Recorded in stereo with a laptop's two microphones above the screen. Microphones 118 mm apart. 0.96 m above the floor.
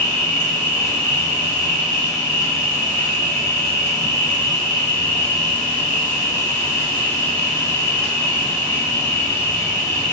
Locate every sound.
0.0 s an insect: 20° left (ahead or behind), 1.5 m